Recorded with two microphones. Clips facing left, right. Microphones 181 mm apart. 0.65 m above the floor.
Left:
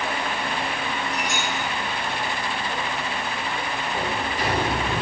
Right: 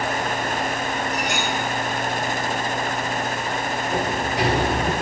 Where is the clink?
70° right (ahead or behind), 4.5 m.